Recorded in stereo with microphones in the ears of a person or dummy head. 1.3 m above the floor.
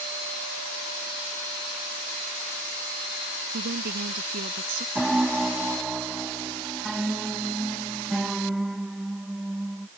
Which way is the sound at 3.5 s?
55° right (ahead or behind).